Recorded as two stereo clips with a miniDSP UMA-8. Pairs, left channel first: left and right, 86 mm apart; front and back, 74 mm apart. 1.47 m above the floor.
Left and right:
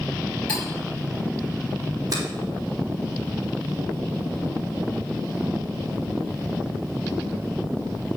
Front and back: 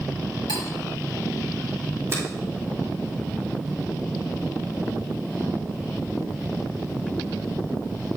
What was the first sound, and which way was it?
Cutlery clinking, 165° left.